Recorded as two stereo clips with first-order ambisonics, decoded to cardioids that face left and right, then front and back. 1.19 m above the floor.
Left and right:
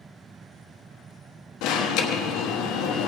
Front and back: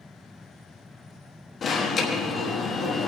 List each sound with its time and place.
1.6 s an alarm: 65° left, 1.2 m